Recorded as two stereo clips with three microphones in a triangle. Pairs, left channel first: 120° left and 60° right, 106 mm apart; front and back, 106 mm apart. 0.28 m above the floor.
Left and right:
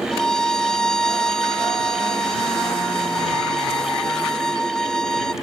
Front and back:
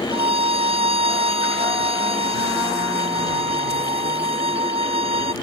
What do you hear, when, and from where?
0.1 s a violin: 155° right